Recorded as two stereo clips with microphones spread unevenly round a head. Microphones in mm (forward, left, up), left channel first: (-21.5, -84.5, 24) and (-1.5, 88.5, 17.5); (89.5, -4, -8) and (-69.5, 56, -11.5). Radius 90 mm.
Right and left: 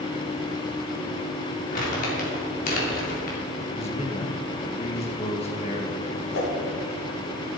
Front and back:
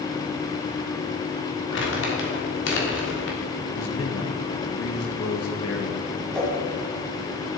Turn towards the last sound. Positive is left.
turn(degrees=-105)